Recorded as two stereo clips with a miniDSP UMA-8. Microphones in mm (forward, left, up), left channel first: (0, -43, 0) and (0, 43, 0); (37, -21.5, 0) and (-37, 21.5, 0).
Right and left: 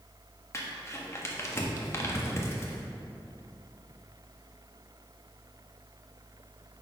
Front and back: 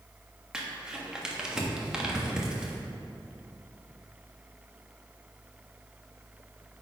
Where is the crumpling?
130° right, 1.0 m.